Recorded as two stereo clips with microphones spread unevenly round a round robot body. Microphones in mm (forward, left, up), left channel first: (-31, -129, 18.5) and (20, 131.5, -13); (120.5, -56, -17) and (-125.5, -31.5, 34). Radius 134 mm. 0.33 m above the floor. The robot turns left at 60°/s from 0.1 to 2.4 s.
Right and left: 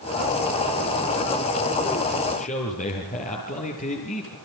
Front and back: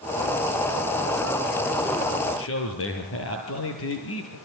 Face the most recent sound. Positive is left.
turn(degrees=-35)